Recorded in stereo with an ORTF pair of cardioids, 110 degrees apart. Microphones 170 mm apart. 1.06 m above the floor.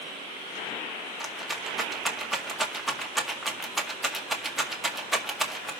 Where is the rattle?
Straight ahead, 1.9 m.